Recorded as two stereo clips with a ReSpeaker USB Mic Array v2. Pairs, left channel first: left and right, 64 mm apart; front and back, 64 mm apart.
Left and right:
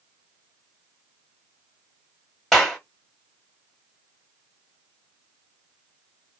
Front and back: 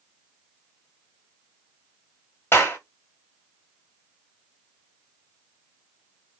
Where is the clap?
10° left, 1.2 m.